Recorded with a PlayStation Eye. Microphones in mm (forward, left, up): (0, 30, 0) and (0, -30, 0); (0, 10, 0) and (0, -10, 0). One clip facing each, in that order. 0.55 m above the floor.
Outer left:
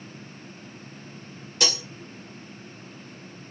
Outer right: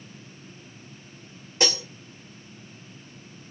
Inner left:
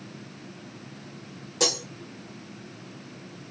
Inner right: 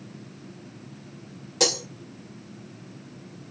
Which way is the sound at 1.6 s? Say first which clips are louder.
Outer right 2 dB, inner right 2 dB; 30° right (ahead or behind).